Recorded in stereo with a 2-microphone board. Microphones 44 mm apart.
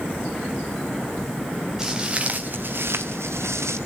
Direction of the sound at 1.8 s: 10° right (ahead or behind).